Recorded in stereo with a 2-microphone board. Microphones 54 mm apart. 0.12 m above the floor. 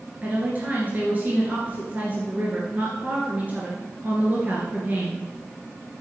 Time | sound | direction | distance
0.2 | a woman speaking | 30° right (ahead or behind) | 2 m